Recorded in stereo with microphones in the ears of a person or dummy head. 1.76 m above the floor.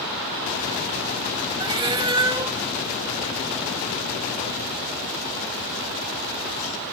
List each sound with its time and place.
1.6 s a cat meowing: 25° right (ahead or behind), 1.6 m